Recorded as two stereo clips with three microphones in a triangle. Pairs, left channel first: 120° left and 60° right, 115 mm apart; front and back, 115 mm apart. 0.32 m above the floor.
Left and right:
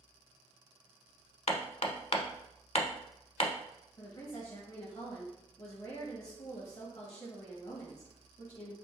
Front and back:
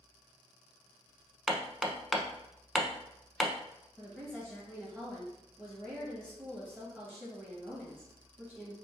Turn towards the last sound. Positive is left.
turn(degrees=80)